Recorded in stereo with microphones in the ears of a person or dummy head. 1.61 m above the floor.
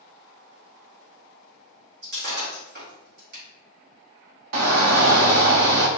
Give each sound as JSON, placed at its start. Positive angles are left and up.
{"t": 2.0, "sound": "breaking glass", "side_deg": -55, "distance_m": 1.8}
{"t": 4.5, "sound": "a shout", "side_deg": -75, "distance_m": 0.7}